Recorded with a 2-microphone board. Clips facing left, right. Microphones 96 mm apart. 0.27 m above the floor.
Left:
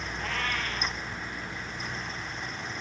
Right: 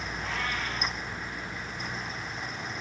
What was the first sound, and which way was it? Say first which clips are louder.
A cat meowing: left 1 dB; 65° left (ahead or behind).